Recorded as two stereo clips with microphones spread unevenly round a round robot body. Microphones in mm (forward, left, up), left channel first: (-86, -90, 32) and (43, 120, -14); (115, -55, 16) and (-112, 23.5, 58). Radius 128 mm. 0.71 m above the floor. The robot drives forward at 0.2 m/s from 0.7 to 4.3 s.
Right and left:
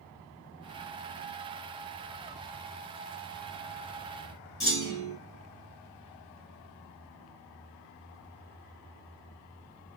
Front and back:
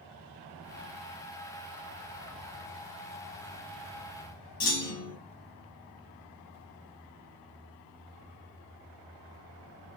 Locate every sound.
4.6 s a clunk: 45° right, 1.9 m